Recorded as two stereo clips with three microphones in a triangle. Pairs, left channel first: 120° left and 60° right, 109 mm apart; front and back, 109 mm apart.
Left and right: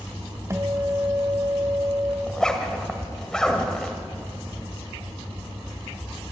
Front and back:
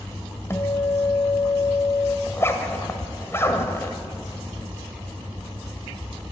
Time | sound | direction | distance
0.5 | a guitar | 35° right | 1.4 m
2.3 | a zipper | 40° left | 1.7 m